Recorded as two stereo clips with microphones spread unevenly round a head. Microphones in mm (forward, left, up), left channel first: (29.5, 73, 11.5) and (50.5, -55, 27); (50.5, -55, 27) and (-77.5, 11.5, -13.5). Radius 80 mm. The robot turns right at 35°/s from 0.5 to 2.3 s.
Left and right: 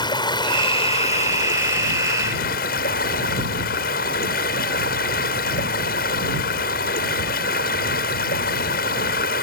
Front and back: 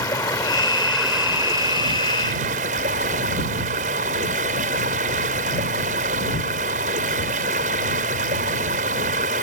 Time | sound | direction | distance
0.0 | running water | 40° left | ?